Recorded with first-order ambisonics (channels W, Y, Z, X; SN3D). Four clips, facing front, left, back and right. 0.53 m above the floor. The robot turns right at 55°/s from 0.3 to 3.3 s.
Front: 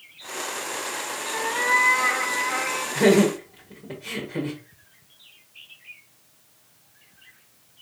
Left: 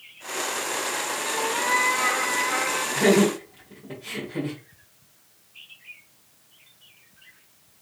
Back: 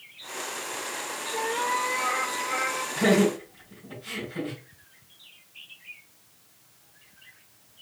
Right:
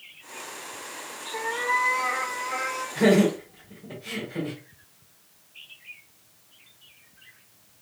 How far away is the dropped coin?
No dropped coin in this recording.